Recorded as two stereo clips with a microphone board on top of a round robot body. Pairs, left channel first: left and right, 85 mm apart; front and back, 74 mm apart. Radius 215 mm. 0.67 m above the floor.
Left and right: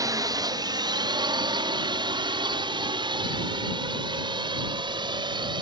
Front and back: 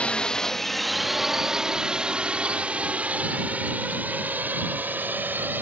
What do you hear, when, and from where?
0.0 s a drone: 70° right; by 5.6 s 115° right